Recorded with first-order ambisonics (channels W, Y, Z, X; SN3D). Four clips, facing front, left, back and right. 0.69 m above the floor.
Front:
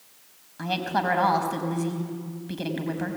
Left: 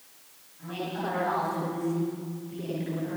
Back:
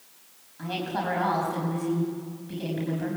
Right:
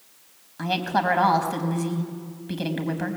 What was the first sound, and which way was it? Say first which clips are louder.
A woman speaking: right 10 dB, front 4 dB; 65° right.